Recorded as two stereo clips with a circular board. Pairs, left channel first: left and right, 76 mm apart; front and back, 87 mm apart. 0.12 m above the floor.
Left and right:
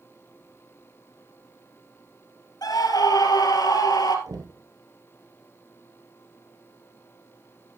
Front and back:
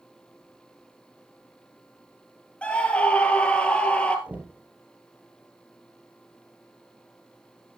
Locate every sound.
2.6 s a scream: 75° left, 2.5 m
4.3 s knocking: 110° right, 2.5 m